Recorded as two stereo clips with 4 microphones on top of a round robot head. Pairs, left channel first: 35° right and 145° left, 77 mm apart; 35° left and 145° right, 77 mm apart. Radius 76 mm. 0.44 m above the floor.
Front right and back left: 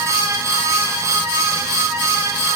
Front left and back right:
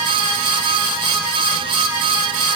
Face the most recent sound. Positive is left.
No sound to turn to.